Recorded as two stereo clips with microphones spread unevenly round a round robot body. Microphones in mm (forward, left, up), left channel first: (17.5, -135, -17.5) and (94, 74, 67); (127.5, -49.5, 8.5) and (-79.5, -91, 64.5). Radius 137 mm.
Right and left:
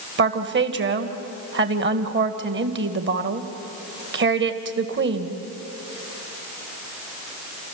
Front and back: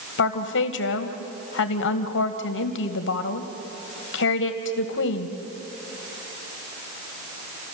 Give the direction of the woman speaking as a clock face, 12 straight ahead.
11 o'clock.